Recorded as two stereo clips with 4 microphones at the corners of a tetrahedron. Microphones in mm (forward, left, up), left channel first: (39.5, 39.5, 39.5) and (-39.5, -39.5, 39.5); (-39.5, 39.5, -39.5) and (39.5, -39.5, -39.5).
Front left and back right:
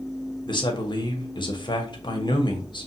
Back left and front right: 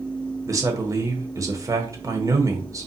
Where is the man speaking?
10° left, 1.2 m.